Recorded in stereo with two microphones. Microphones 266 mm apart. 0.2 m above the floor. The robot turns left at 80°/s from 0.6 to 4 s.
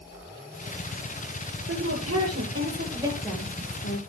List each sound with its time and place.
1.7 s a woman speaking: 55° right, 5 m; by 4.0 s 120° left, 5 m